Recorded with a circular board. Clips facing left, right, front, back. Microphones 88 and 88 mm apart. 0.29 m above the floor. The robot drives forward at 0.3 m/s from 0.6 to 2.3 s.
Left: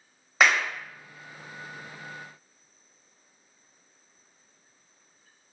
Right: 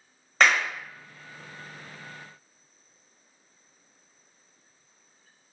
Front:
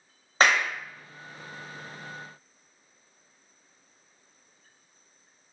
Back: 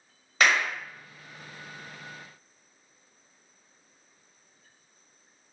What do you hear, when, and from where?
0.4 s a clap: 10° left, 0.8 m; by 0.7 s 15° left, 0.8 m